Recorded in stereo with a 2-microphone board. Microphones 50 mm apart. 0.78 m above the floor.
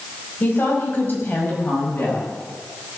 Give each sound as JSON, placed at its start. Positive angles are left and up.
{"t": 0.4, "sound": "a woman speaking", "side_deg": 45, "distance_m": 5.0}